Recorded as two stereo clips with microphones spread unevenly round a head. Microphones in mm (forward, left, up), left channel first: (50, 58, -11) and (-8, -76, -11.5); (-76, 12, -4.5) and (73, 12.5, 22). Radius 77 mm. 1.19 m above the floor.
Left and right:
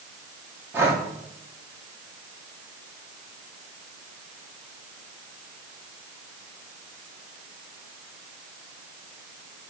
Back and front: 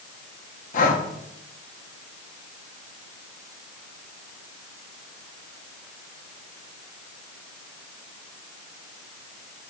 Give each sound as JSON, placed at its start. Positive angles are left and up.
{"t": 0.7, "sound": "breathing", "azimuth_deg": 170, "distance_m": 1.2}